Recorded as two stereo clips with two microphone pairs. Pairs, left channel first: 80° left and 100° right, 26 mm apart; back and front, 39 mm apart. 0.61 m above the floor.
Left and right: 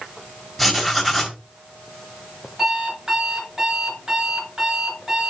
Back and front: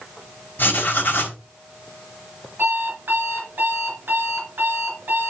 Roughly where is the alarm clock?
Ahead right.